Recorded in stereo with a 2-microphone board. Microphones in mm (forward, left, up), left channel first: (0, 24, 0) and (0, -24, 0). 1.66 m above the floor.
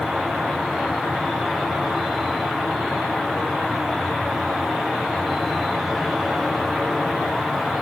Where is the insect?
5° right (ahead or behind), 1.2 m.